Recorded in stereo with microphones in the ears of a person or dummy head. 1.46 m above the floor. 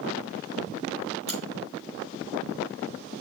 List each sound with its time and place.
1.3 s a crack: 35° right (ahead or behind), 4.5 m